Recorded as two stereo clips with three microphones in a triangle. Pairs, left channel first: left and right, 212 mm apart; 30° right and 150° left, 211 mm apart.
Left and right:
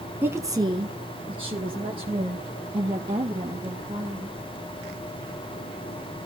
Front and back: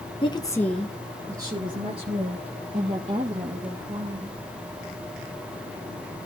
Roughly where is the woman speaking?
Ahead right.